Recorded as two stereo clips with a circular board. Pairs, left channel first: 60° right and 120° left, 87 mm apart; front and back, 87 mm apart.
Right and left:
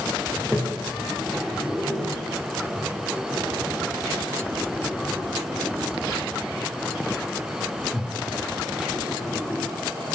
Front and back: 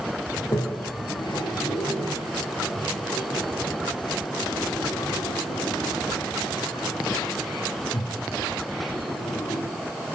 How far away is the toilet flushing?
About 6 m.